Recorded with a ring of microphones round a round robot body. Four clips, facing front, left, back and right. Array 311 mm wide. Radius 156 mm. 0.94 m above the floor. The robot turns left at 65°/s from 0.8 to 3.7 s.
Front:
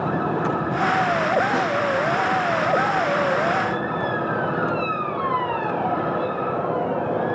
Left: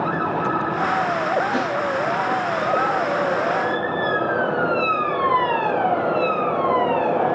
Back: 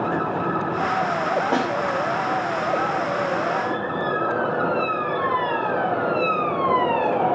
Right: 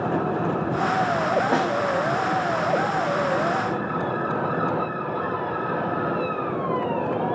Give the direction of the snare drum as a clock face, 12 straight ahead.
4 o'clock.